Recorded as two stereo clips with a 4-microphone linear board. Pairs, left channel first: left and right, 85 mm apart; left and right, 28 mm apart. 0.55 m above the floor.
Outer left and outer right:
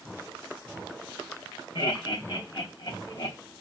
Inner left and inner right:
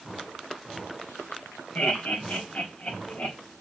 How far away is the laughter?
About 3.5 m.